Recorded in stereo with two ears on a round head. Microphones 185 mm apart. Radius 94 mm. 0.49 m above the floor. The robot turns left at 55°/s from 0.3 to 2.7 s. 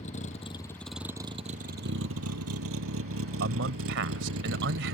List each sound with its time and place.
0.0 s a vehicle: 35° left (ahead or behind); by 5.0 s 75° right (ahead or behind)
3.4 s a man speaking: 60° right (ahead or behind)